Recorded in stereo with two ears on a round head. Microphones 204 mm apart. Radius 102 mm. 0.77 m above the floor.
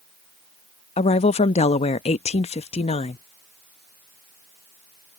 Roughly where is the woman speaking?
Left.